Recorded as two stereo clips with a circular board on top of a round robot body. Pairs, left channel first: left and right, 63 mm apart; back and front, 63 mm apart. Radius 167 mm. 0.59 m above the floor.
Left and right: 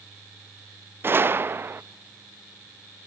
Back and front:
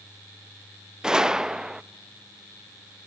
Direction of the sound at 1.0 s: 75° right.